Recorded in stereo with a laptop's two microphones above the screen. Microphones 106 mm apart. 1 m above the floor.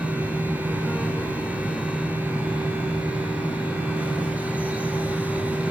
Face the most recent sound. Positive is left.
turn(degrees=-15)  # may be behind; listen again after turning